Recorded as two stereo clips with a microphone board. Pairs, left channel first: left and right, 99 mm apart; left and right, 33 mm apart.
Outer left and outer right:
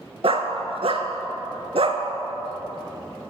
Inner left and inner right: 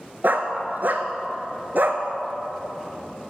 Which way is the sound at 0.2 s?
65° right (ahead or behind).